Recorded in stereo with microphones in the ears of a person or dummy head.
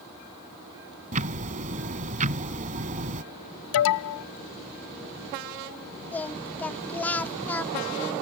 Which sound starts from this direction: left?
An alarm, at 3.7 s.